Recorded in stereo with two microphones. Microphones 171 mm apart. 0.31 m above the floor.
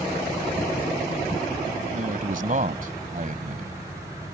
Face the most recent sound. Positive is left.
turn(degrees=-50)  # may be behind; listen again after turning